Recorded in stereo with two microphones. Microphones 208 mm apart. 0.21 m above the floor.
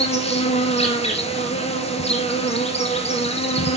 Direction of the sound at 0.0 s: 30° left (ahead or behind).